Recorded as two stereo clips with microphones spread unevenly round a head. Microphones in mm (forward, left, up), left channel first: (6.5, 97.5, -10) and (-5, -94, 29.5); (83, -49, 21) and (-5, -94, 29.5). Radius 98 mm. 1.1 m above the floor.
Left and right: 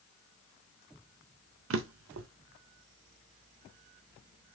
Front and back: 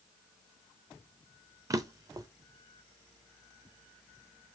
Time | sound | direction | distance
1.7 | a drawer | 100° right | 0.5 m